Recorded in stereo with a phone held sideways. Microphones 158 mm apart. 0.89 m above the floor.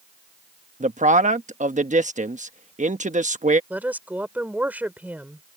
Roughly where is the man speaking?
Right.